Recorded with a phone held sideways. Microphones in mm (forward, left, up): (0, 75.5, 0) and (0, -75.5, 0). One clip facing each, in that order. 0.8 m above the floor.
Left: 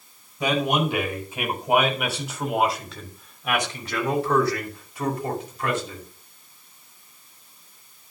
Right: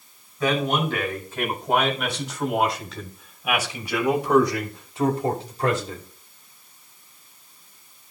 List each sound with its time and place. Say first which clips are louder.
0.4 s a man speaking: even; 20° left (ahead or behind), 4.5 m; by 6.0 s 45° right (ahead or behind), 2.5 m